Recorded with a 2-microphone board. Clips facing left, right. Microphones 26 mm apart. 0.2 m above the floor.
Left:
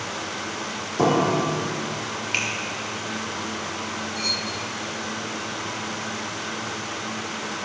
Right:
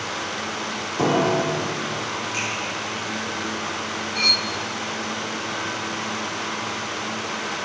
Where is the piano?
15° left (ahead or behind), 3.5 m.